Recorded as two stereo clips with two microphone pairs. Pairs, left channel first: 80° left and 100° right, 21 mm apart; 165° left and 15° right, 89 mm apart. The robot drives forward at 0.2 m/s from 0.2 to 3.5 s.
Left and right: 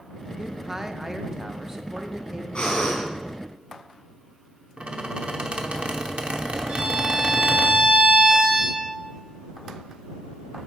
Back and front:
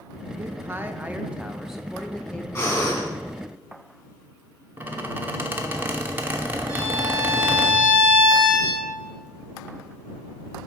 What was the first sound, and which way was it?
A man speaking, 30° right.